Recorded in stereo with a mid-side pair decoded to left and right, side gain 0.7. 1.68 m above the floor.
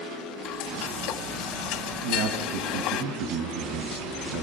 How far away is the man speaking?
About 2.5 m.